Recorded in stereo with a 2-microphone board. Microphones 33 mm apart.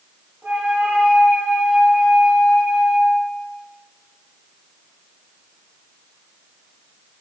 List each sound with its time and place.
0.4 s a flute: 55° right (ahead or behind), 2 m